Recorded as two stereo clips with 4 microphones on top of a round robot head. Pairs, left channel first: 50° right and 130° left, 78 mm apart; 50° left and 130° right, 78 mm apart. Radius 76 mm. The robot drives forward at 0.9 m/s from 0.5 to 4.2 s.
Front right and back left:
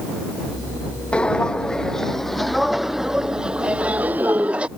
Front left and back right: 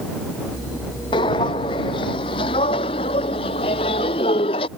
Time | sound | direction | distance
1.1 | footsteps | 25° left | ?